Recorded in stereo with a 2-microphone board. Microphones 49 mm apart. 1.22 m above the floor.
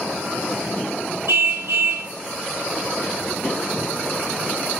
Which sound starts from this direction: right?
A car horn, at 1.3 s.